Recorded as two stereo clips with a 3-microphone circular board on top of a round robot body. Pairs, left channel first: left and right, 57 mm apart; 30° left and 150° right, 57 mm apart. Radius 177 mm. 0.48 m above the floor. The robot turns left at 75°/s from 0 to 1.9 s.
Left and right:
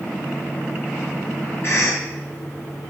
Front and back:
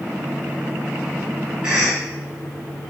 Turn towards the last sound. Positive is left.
turn(degrees=115)